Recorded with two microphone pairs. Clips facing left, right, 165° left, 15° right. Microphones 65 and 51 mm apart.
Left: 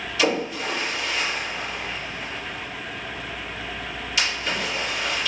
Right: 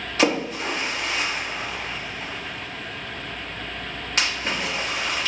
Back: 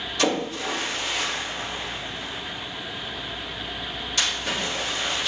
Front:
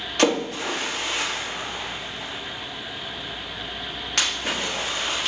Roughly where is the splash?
Ahead right.